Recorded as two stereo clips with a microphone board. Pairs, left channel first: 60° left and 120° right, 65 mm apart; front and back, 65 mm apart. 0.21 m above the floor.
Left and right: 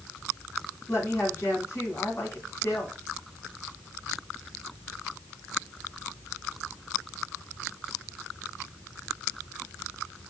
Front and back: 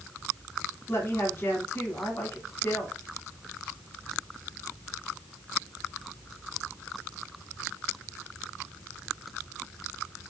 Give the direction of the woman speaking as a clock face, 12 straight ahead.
11 o'clock.